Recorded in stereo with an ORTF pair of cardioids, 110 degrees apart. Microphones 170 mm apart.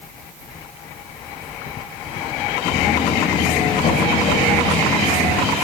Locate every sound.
2.6 s footsteps: 50° left, 4.5 m; by 5.5 s 60° left, 5.5 m